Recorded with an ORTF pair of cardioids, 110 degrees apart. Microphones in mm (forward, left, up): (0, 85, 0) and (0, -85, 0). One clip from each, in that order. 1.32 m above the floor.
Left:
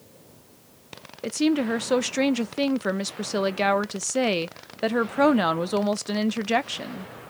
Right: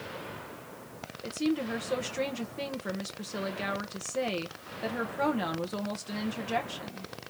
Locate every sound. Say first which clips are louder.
1.2 s a woman speaking: left 8 dB; 45° left, 0.6 m